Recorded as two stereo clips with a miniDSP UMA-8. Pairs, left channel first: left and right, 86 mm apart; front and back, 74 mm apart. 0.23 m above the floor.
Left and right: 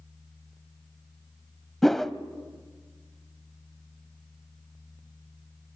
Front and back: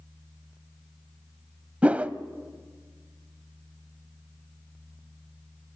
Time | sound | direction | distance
1.8 | a whoosh | 170° left | 0.7 m